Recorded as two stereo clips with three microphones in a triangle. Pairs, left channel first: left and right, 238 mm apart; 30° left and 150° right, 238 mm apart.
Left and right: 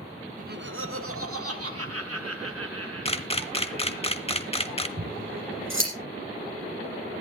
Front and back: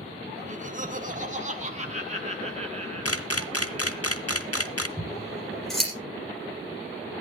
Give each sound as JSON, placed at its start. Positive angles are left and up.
{"t": 0.4, "sound": "laughter", "azimuth_deg": -115, "distance_m": 0.7}
{"t": 3.0, "sound": "a camera shutter", "azimuth_deg": 30, "distance_m": 0.8}
{"t": 5.0, "sound": "scissors", "azimuth_deg": -60, "distance_m": 5.5}